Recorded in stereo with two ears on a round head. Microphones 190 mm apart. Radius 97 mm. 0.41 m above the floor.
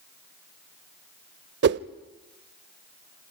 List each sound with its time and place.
1.6 s a whoosh: 50° right (ahead or behind), 0.5 m